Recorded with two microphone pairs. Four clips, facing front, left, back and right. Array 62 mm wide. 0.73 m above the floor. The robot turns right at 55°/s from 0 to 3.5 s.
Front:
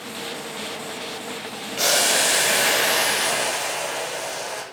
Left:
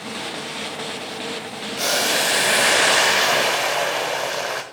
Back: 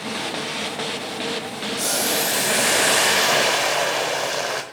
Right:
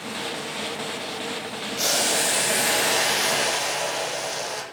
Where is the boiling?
35° left, 1.4 m; by 4.6 s 130° left, 1.4 m.